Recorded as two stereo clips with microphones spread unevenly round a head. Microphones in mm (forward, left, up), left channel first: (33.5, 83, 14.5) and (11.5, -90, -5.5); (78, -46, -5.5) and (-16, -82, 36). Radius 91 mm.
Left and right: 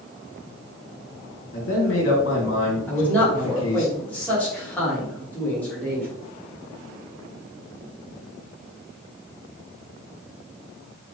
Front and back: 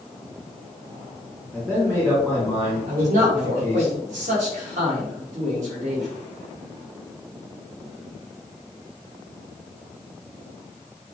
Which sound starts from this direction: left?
A man speaking, at 1.5 s.